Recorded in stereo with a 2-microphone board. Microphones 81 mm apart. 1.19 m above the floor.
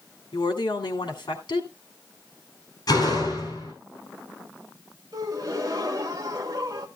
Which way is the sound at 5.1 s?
45° right (ahead or behind).